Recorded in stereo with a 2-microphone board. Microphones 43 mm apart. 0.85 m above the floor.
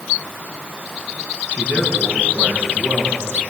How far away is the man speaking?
About 8.5 m.